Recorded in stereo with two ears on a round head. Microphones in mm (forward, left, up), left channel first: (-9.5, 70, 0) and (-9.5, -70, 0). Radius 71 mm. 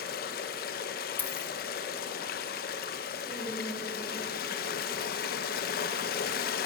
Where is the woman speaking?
Centre (ahead or behind), 5.5 m.